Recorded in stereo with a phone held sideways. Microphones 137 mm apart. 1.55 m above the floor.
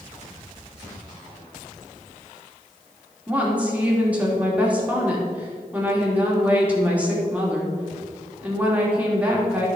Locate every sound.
3.3 s a woman speaking: 10° right (ahead or behind), 2.5 m